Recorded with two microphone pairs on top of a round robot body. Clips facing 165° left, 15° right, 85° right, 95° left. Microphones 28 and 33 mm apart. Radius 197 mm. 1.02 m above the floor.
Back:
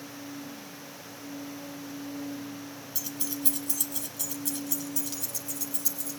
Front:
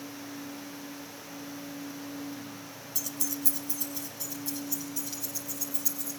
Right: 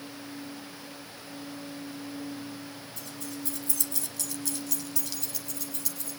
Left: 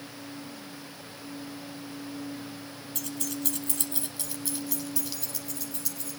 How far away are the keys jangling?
About 0.6 m.